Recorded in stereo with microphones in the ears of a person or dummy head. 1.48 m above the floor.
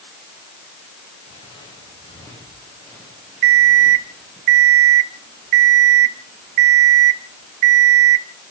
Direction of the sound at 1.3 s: 25° left (ahead or behind).